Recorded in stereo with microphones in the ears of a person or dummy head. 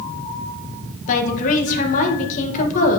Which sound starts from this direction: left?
A woman speaking, at 1.1 s.